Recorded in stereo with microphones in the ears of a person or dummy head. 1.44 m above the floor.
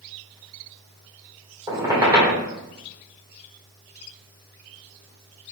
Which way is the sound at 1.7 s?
20° right (ahead or behind).